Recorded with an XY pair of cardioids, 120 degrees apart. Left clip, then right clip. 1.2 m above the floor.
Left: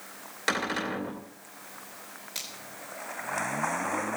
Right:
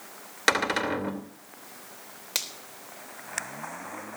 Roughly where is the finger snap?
Right.